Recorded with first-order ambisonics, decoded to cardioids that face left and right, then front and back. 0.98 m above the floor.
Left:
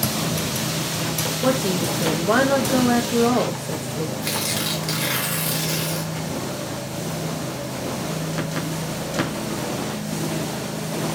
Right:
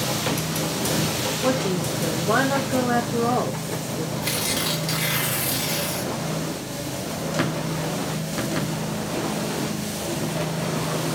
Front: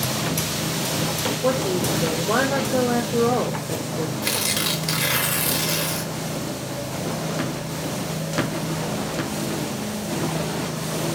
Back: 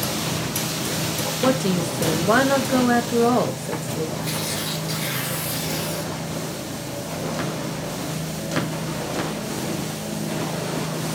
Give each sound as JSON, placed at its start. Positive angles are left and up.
{"t": 1.4, "sound": "a woman speaking", "azimuth_deg": 155, "distance_m": 0.6}
{"t": 4.2, "sound": "tearing paper", "azimuth_deg": 10, "distance_m": 0.8}